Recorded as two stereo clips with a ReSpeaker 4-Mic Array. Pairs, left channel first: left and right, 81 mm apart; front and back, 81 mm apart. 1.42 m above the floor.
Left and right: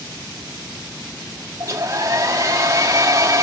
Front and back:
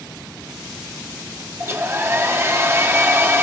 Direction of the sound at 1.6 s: 130° right.